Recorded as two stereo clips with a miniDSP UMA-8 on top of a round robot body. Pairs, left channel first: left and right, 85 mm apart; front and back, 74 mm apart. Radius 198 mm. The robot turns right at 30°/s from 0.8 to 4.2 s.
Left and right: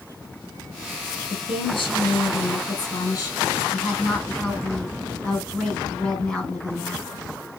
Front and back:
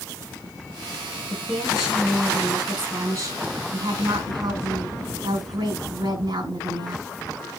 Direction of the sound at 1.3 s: 85° left.